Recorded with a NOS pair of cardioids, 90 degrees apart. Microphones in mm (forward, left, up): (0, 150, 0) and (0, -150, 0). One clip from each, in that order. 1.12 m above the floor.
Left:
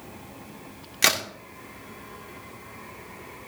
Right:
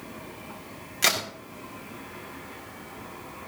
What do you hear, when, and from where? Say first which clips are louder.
1.0 s a crack: left 2 dB; 30° left, 3 m